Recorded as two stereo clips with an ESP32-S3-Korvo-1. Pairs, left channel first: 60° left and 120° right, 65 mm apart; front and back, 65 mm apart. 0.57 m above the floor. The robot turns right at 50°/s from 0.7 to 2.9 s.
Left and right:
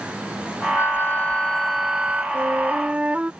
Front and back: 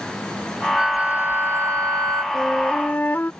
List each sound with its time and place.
0.8 s a flute: 100° left; by 2.2 s 175° left
2.3 s a flute: 85° right; by 3.3 s 55° right